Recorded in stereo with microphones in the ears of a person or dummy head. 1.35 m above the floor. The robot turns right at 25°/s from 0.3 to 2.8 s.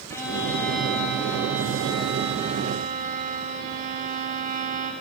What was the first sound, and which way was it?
A violin, 170° left.